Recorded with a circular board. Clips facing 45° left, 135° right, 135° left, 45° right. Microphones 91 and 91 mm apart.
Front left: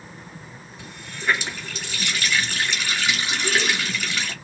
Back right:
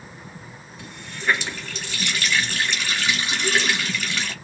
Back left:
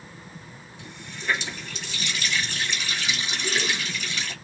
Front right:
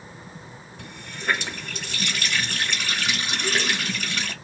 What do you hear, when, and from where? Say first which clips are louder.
0.8 s a running tap: back right 1 dB, front right 3 dB; 40° right, 1.4 m